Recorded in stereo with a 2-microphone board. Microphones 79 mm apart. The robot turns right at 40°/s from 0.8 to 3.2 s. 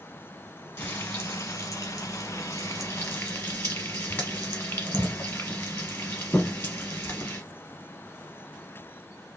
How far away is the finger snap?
I don't hear a finger snap.